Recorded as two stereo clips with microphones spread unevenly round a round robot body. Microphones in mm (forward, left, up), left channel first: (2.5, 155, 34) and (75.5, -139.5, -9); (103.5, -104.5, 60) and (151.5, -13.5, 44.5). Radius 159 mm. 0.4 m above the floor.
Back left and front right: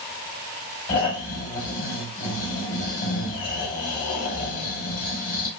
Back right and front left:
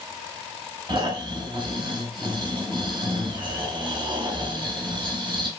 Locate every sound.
0.9 s snoring: 70° left, 2 m